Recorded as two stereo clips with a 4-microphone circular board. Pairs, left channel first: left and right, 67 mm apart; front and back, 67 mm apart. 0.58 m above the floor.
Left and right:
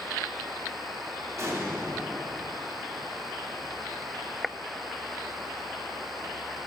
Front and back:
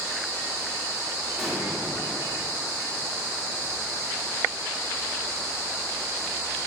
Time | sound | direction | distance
1.4 | an explosion | 100° right | 1.6 m